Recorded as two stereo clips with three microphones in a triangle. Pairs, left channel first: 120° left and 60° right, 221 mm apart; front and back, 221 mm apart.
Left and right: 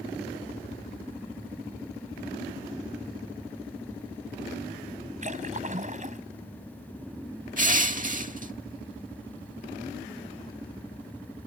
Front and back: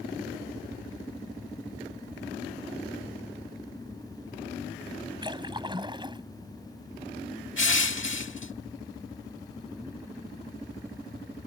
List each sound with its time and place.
5.2 s a splash: 110° right
7.6 s crushing: 10° right